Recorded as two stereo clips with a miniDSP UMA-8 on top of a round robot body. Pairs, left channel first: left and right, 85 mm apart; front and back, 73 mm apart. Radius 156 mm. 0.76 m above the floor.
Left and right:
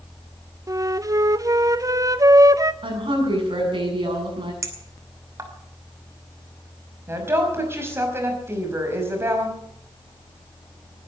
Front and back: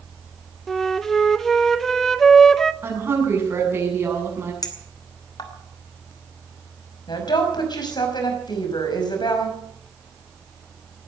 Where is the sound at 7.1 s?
25° right, 5.5 m.